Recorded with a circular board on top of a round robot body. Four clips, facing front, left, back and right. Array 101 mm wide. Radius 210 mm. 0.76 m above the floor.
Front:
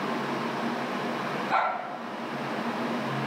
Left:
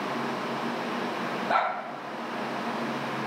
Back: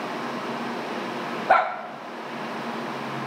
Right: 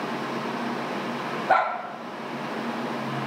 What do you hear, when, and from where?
1.5 s a dog barking: 160° right, 0.8 m